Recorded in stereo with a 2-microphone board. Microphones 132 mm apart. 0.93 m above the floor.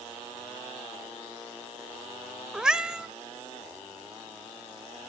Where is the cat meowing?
5° right (ahead or behind), 0.7 m.